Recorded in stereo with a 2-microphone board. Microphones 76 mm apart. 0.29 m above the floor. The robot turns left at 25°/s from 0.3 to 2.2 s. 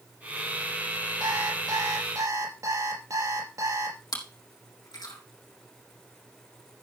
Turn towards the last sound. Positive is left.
turn(degrees=60)  # may be behind; listen again after turning